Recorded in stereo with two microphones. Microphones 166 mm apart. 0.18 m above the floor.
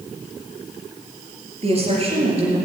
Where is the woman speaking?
40° right (ahead or behind), 4 m.